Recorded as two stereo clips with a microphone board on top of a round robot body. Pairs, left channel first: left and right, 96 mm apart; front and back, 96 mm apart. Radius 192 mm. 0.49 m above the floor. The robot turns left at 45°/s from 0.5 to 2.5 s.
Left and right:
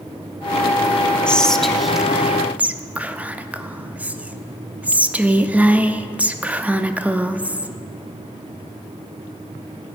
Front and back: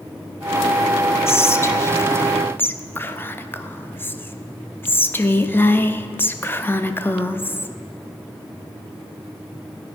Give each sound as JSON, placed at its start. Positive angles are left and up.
{"t": 1.3, "sound": "whispering", "azimuth_deg": 20, "distance_m": 0.7}